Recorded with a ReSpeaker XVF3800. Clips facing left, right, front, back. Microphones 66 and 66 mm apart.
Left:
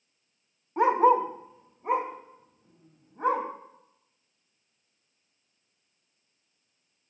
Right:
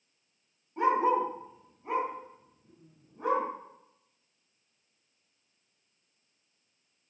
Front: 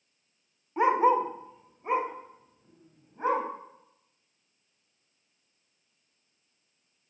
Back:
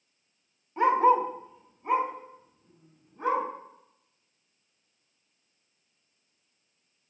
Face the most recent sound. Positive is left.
turn(degrees=60)